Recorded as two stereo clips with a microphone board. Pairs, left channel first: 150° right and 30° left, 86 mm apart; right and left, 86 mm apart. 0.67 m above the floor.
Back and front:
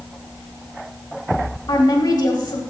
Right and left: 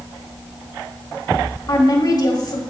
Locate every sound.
1.7 s a woman speaking: 125° right, 1.5 m